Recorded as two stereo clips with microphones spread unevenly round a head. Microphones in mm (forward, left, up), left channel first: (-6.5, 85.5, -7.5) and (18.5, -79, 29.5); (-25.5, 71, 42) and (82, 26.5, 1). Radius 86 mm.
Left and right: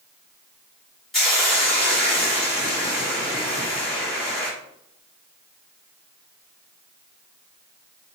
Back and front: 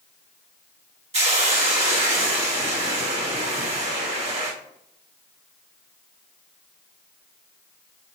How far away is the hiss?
About 3.5 m.